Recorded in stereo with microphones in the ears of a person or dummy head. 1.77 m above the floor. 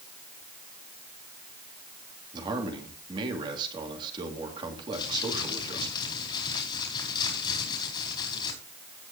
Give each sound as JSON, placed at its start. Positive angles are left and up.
{"t": 2.3, "sound": "a man speaking", "side_deg": -30, "distance_m": 3.0}
{"t": 4.9, "sound": "crumpling", "side_deg": 25, "distance_m": 5.0}